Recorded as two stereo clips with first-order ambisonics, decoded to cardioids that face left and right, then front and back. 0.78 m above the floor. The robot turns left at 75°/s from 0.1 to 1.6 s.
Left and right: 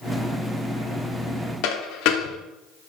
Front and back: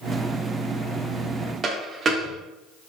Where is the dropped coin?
115° left, 0.5 m.